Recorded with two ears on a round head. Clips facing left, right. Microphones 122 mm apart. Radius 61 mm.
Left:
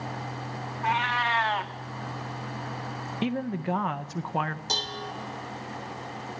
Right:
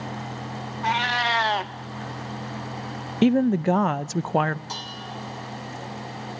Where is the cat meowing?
45° right (ahead or behind), 0.7 m.